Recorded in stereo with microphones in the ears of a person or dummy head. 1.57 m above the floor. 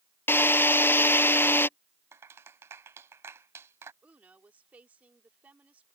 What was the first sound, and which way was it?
A drill, 10° left (ahead or behind).